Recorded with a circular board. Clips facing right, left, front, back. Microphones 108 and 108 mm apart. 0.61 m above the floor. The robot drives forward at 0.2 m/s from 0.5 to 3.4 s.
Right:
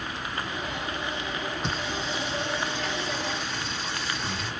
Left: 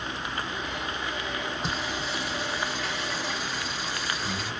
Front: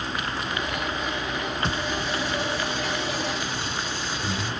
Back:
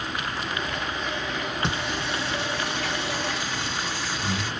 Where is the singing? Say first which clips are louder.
Right 1 dB, front 1 dB; straight behind, 1.1 m.